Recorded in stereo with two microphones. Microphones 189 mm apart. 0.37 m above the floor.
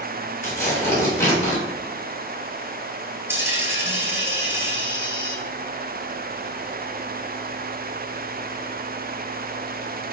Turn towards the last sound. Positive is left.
turn(degrees=-10)  # may be behind; listen again after turning